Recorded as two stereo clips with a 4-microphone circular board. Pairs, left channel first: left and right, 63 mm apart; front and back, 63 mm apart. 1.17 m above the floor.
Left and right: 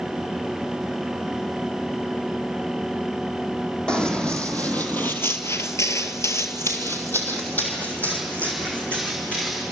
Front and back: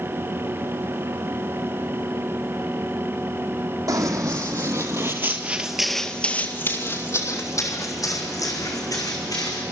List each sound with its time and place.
3.9 s running footsteps: 165° left, 3.5 m; by 9.6 s 20° left, 6.5 m